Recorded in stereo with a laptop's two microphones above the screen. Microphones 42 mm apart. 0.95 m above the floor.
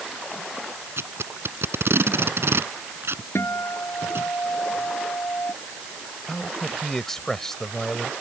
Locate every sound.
1.0 s tape being pulled: 70° right (ahead or behind)
3.4 s a guitar: 80° left
6.3 s a man speaking: 10° left (ahead or behind)